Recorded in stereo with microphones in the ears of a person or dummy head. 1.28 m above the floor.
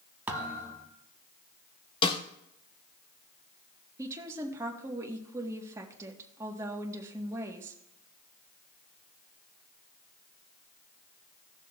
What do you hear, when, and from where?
0.3 s a thud: 15° right (ahead or behind), 1.3 m
2.0 s a snare drum: 30° left (ahead or behind), 1.0 m
4.0 s a woman speaking: 15° right (ahead or behind), 1.3 m